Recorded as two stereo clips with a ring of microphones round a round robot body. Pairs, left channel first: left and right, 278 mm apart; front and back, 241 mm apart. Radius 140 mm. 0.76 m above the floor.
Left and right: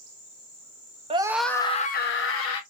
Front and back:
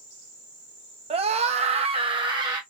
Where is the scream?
140° right, 0.6 m; by 2.6 s 110° left, 0.9 m.